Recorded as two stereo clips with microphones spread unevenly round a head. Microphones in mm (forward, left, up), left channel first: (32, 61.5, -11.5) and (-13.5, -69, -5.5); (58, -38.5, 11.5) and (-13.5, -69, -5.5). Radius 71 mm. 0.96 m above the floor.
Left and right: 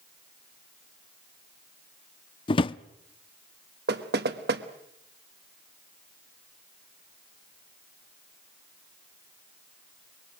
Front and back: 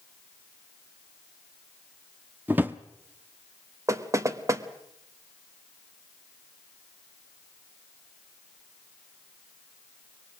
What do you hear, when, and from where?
2.5 s a drawer: 120° left, 0.5 m
3.9 s knocking: 120° right, 1.3 m